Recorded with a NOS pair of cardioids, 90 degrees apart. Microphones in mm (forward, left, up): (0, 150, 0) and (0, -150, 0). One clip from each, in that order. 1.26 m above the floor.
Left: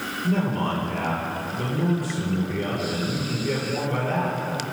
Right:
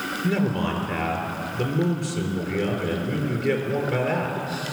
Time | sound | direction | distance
0.2 | a man speaking | 60° right | 4.5 m